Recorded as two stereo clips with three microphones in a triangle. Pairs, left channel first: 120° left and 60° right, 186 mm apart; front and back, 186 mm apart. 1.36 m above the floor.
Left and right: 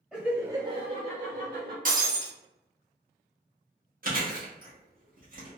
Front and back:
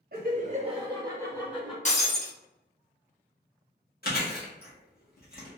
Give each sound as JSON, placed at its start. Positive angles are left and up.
{"t": 0.1, "sound": "laughter", "azimuth_deg": -160, "distance_m": 0.8}
{"t": 1.9, "sound": "breaking glass", "azimuth_deg": -35, "distance_m": 0.9}
{"t": 4.0, "sound": "chewing", "azimuth_deg": -25, "distance_m": 1.5}